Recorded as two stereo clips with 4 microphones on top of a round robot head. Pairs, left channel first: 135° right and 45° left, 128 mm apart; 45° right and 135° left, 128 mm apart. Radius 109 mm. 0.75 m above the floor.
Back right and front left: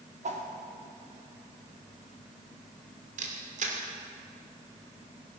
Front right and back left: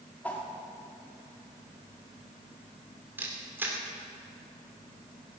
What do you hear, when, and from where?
0.2 s a whoosh: 30° left, 2 m
3.2 s a camera shutter: 60° left, 2.5 m